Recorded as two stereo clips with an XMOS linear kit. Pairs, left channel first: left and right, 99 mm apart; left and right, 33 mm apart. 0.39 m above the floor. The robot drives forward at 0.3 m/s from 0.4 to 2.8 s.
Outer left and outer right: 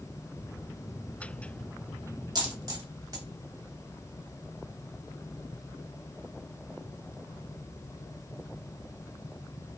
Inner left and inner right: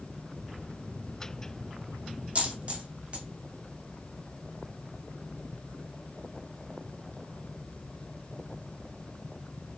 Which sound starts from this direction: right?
A dropped coin, at 2.4 s.